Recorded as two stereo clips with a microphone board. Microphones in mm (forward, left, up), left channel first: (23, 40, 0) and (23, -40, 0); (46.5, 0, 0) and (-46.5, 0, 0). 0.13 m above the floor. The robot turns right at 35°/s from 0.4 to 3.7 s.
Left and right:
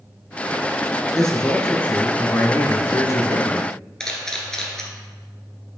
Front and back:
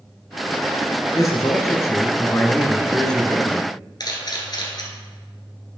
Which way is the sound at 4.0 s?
10° left.